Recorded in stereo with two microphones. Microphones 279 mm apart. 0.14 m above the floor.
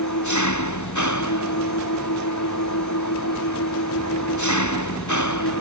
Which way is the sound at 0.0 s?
85° left.